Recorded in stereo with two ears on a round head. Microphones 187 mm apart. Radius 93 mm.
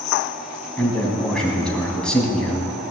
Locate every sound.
0.8 s a man speaking: 5° left (ahead or behind), 3 m